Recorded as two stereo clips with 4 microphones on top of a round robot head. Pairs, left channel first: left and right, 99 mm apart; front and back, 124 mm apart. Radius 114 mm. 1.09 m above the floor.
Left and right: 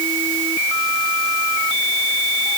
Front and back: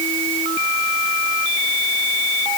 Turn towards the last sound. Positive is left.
No sound to turn to.